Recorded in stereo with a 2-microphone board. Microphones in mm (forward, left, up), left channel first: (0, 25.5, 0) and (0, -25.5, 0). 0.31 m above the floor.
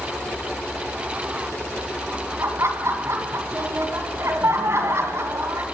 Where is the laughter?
60° right (ahead or behind), 3 m.